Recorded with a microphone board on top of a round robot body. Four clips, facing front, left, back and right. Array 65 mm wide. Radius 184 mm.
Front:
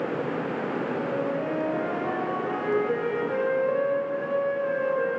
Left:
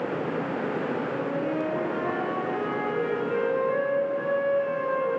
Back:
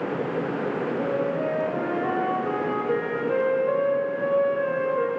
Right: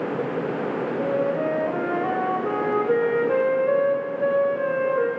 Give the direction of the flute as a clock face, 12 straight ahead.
4 o'clock.